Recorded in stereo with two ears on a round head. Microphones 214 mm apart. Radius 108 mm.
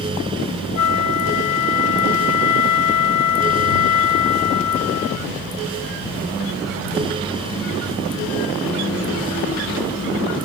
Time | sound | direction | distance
0.8 | a flute | 75° left (ahead or behind) | ?